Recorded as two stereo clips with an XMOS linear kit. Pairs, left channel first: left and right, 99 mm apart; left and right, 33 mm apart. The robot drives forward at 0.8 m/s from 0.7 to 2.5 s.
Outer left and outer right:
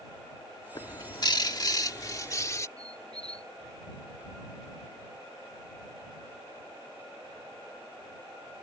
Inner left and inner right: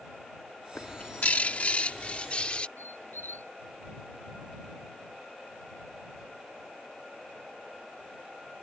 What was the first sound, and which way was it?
A bird, 50° left (ahead or behind).